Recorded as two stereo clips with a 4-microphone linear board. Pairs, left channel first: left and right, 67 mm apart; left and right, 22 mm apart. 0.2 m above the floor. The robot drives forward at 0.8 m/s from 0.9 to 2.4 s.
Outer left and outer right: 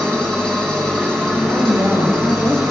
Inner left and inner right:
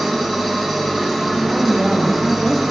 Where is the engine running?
10° left (ahead or behind), 5.5 m.